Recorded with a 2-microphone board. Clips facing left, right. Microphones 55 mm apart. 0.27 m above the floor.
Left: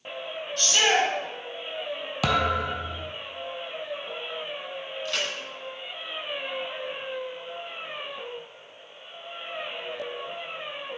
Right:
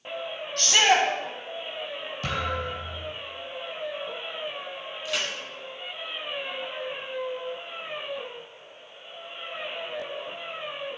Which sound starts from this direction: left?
A thud, at 2.2 s.